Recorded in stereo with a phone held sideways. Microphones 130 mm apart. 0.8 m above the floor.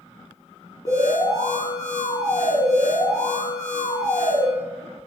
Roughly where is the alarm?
Left.